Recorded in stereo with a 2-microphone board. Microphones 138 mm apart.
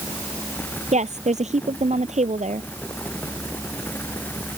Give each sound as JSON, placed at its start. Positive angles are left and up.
{"t": 0.9, "sound": "a woman speaking", "side_deg": -55}